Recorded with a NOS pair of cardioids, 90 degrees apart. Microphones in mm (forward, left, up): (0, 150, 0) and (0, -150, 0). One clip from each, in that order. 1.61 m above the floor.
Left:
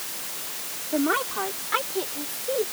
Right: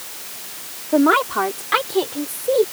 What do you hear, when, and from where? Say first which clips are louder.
0.9 s a woman speaking: right 9 dB; 60° right; by 2.6 s 65° right